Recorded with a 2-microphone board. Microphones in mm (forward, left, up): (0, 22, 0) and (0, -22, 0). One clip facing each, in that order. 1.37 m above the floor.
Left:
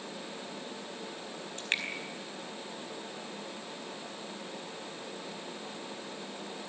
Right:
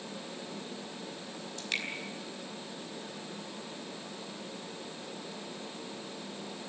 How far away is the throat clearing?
No throat clearing in this recording.